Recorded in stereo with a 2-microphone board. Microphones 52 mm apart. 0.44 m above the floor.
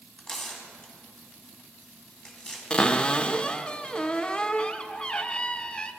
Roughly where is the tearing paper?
Centre.